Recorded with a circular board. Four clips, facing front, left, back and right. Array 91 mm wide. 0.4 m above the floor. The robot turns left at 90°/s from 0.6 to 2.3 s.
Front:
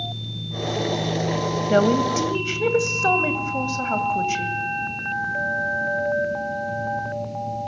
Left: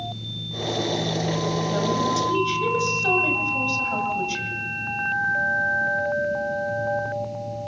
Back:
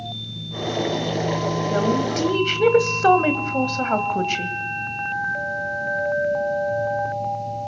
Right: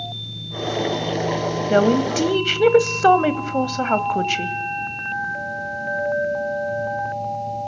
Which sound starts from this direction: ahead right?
A woman speaking, at 1.7 s.